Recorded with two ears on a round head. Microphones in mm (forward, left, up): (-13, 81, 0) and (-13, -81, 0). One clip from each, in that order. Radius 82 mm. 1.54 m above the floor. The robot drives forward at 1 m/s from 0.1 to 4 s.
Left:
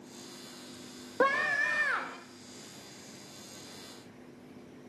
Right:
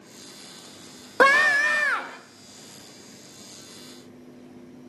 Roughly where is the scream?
Right.